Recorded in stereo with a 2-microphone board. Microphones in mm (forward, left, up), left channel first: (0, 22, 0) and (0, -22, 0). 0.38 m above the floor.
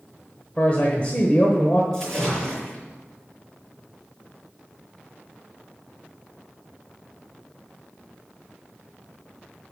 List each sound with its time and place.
0.6 s a man speaking: 35° left (ahead or behind), 1.2 m
1.9 s a splash: 10° left (ahead or behind), 4 m